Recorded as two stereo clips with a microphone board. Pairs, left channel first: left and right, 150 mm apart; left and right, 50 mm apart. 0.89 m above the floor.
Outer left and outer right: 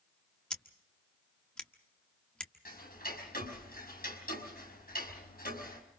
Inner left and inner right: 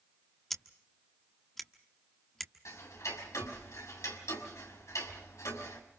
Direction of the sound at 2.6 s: 80° left.